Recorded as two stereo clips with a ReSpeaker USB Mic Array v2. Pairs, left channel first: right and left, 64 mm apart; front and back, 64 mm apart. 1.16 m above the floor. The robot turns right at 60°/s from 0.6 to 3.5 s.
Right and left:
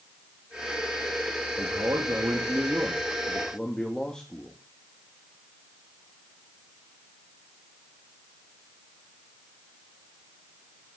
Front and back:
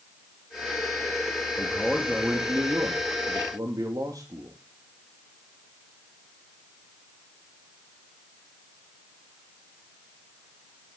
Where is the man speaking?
75° left, 2 m; by 4.6 s 170° right, 2 m.